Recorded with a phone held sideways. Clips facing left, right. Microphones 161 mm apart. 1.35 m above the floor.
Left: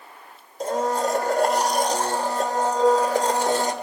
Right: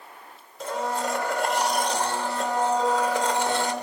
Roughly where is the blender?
Left.